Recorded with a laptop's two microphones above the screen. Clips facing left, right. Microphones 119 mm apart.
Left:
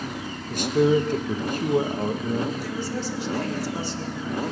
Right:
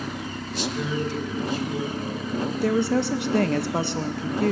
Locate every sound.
0.5 s a man speaking: 50° left (ahead or behind), 1.0 m
2.6 s a woman speaking: 65° right (ahead or behind), 0.6 m